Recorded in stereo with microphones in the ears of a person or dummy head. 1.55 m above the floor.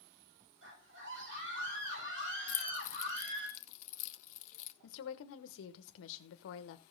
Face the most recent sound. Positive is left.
turn(degrees=70)  # may be behind; listen again after turning